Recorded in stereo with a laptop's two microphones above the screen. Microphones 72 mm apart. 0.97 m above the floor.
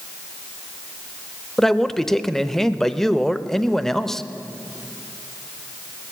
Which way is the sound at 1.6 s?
5° left (ahead or behind).